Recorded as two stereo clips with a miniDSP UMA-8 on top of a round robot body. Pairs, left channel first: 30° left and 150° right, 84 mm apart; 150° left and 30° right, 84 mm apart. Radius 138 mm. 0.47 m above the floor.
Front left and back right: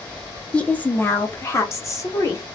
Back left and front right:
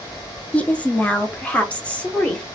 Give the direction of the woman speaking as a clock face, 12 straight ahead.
9 o'clock.